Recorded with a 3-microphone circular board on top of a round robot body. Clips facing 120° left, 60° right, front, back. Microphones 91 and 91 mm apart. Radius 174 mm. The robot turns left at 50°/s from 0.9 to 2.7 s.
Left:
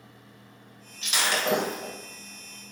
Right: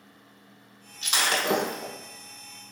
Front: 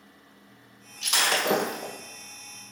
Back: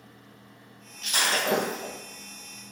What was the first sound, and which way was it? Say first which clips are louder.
Breaking glass: even, front 1 dB; 5° right.